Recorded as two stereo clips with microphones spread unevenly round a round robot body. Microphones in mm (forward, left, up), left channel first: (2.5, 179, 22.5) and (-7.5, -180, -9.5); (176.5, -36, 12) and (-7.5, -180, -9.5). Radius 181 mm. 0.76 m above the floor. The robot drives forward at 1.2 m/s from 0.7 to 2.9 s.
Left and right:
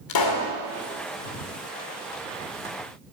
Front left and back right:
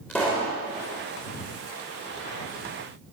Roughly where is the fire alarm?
I don't hear a fire alarm.